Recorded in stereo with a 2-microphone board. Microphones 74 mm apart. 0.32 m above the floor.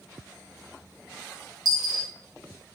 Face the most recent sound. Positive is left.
turn(degrees=-65)  # may be behind; listen again after turning